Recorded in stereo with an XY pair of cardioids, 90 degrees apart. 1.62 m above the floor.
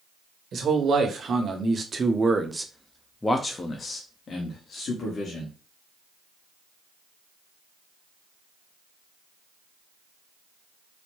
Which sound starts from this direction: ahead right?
A man speaking, at 0.5 s.